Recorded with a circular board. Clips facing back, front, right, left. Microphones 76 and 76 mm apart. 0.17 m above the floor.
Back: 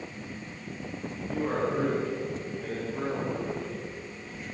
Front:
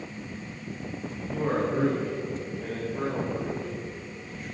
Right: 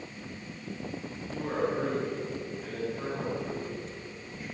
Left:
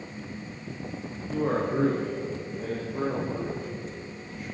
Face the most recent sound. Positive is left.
turn(degrees=100)